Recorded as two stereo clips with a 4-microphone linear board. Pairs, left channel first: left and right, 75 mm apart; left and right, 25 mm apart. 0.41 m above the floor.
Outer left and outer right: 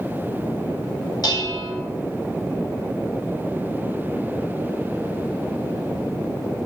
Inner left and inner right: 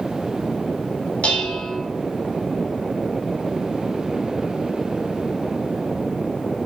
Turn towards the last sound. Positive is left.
turn(degrees=60)  # may be behind; listen again after turning